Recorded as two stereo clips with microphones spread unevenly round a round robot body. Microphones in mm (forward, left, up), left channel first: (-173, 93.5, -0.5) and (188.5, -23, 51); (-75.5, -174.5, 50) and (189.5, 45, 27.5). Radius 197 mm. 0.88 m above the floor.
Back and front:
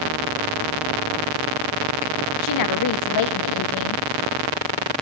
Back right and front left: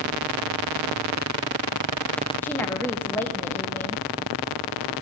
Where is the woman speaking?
135° left, 1.1 m.